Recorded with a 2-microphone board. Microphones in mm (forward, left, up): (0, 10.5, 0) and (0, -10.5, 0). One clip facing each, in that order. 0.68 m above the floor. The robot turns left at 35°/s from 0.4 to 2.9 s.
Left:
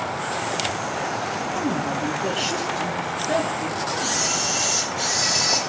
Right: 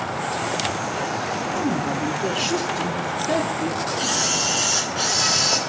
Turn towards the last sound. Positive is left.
turn(degrees=-75)  # may be behind; listen again after turning